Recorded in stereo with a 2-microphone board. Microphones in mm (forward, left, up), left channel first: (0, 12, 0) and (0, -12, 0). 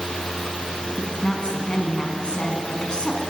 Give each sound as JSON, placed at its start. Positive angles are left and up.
{"t": 1.0, "sound": "a woman speaking", "side_deg": 35, "distance_m": 5.0}